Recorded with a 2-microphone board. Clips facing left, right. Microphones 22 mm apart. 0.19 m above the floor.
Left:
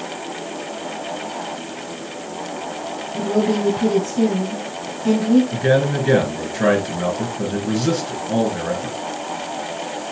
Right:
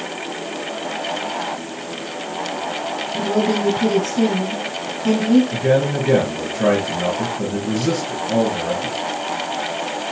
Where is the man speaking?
60° left (ahead or behind), 2.5 m.